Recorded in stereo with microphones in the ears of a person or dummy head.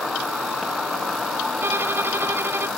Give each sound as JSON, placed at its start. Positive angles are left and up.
{"t": 0.0, "sound": "an insect", "side_deg": 0}
{"t": 1.6, "sound": "a violin", "side_deg": -15}